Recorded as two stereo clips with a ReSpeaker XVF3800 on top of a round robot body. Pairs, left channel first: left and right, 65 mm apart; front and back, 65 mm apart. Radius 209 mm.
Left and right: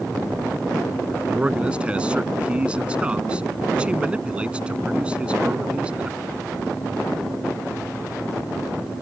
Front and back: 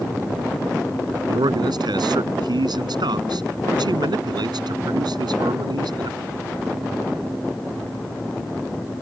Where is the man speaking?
165° right.